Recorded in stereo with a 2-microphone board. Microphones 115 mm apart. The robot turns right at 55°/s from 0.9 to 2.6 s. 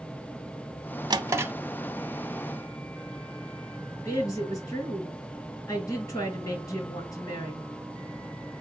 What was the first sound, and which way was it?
A drawer, 40° right (ahead or behind).